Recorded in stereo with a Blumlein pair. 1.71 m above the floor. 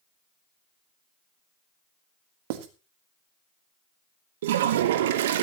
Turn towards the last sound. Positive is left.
turn(degrees=-55)